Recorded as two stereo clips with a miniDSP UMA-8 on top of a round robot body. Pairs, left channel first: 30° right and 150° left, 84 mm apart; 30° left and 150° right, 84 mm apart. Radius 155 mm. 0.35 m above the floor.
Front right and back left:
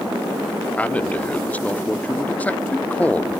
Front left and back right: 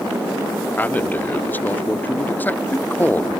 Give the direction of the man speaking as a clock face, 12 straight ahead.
12 o'clock.